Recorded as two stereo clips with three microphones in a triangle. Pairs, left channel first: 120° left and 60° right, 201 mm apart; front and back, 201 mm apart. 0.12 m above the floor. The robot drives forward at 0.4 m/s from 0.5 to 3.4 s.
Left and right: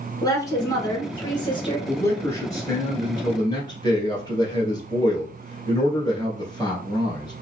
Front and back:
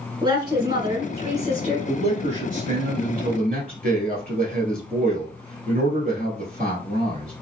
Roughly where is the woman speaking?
Behind.